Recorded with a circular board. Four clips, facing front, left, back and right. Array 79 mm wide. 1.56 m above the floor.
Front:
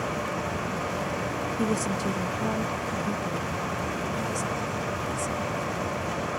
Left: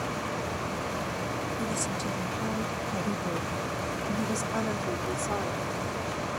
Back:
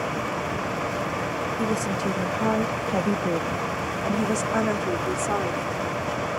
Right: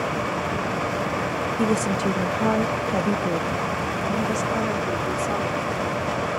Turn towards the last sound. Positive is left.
turn(degrees=180)